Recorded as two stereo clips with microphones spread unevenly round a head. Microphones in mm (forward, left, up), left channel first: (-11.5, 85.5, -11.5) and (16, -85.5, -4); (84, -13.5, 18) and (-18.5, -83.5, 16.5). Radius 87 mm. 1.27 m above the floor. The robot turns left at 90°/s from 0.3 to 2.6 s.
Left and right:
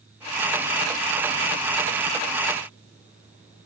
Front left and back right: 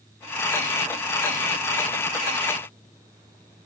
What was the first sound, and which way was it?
Only background noise.